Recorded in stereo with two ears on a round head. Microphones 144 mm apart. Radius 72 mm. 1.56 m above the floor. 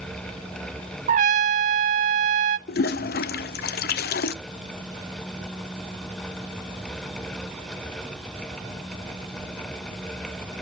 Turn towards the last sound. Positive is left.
turn(degrees=65)  # may be behind; listen again after turning